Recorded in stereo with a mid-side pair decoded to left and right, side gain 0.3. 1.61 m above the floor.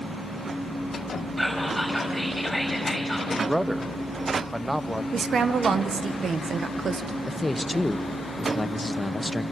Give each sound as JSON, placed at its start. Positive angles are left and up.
{"t": 1.4, "sound": "whispering", "azimuth_deg": -5, "distance_m": 4.5}
{"t": 3.3, "sound": "a man speaking", "azimuth_deg": -10, "distance_m": 0.9}
{"t": 5.1, "sound": "a woman speaking", "azimuth_deg": -70, "distance_m": 1.5}
{"t": 7.3, "sound": "a man speaking", "azimuth_deg": 20, "distance_m": 1.5}